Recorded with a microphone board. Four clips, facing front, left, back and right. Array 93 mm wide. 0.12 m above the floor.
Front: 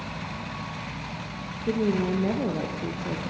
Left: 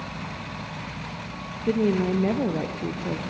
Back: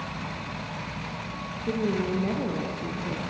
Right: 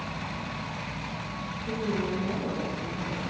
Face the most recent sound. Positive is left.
turn(degrees=70)